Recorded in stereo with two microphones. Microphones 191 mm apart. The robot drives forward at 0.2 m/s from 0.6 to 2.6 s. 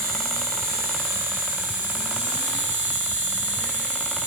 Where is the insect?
50° right (ahead or behind), 1.7 m; by 4.3 s 40° right (ahead or behind), 2.0 m.